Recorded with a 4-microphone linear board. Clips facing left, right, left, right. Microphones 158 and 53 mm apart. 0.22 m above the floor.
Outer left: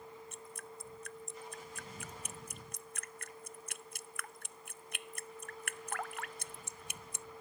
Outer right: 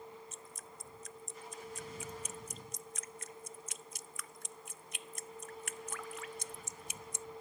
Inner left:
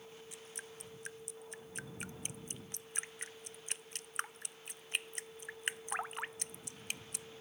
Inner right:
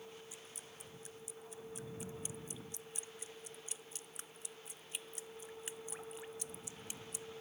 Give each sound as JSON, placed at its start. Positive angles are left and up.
{"t": 0.3, "sound": "dripping", "side_deg": 60}